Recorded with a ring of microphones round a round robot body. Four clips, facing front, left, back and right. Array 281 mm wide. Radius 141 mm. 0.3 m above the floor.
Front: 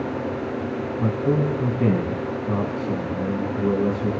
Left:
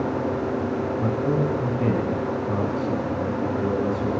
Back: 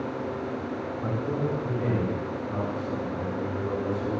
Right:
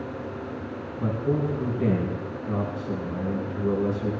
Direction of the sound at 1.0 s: 10° right.